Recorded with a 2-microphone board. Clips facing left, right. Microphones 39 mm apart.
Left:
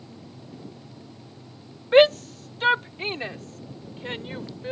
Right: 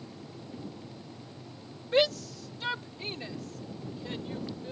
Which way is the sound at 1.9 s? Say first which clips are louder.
Left 10 dB; 50° left (ahead or behind).